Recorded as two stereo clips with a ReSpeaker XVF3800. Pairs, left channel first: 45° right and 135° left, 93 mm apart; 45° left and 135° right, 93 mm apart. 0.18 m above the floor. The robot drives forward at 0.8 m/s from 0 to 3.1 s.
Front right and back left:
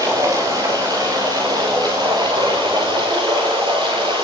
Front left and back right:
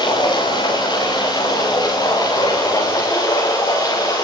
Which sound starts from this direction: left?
Running water, at 0.0 s.